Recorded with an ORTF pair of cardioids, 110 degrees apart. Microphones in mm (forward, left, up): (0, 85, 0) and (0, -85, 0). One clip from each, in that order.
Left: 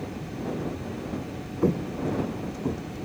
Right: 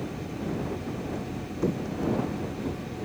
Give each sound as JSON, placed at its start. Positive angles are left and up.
{"t": 1.6, "sound": "footsteps", "azimuth_deg": 30}